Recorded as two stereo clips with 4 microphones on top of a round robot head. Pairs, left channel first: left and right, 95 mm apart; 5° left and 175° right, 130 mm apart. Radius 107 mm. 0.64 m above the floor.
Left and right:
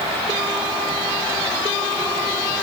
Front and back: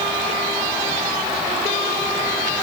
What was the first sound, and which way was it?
Only background noise.